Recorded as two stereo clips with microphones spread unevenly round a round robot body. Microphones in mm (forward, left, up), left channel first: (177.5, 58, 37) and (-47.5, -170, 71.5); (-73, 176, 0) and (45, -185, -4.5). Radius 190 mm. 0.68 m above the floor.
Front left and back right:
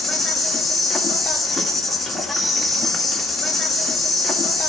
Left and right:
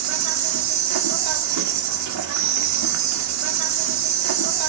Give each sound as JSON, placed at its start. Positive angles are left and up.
{"t": 0.0, "sound": "an insect", "azimuth_deg": -40, "distance_m": 1.5}